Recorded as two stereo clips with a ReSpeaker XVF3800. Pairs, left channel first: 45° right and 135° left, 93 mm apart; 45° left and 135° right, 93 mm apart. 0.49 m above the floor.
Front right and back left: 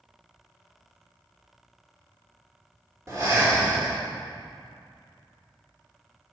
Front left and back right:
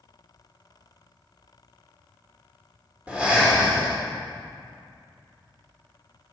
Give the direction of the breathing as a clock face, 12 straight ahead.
7 o'clock.